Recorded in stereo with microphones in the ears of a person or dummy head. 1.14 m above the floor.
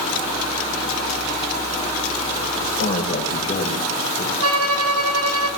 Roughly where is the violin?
Right.